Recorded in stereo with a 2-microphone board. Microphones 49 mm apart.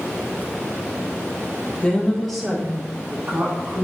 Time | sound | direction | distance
1.8 | a woman speaking | 20° left (ahead or behind) | 0.6 m